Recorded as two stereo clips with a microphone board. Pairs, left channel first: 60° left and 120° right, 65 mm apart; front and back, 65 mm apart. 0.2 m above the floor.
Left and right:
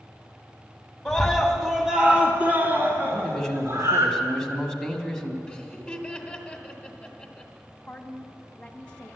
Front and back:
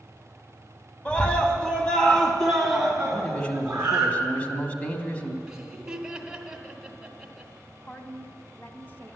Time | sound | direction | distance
1.1 | a scream | 10° left | 1.3 m
3.1 | a man speaking | straight ahead | 1.0 m
5.5 | laughter | 120° left | 1.1 m
7.9 | a woman speaking | 10° left | 1.1 m